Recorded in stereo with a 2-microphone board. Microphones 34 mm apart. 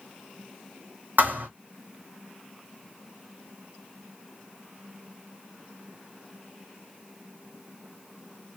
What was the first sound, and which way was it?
A thud, 65° right (ahead or behind).